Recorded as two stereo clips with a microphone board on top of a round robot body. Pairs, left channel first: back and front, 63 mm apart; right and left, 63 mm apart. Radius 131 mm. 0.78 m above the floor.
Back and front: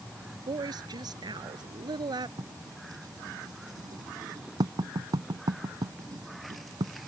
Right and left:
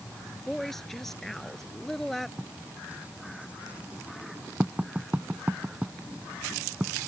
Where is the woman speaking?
5° right.